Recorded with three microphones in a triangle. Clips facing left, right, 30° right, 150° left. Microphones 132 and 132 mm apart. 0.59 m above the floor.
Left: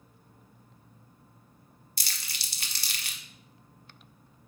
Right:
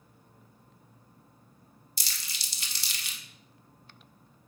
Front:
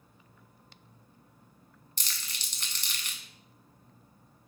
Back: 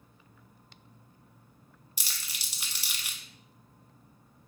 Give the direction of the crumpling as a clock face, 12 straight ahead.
10 o'clock.